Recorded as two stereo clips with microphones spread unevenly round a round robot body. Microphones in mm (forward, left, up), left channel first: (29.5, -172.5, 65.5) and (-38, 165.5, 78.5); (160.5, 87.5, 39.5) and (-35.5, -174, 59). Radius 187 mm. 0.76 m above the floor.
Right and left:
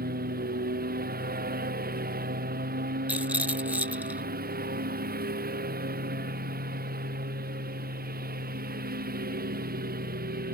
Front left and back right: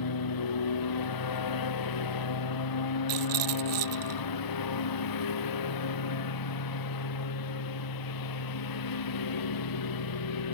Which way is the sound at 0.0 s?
35° left.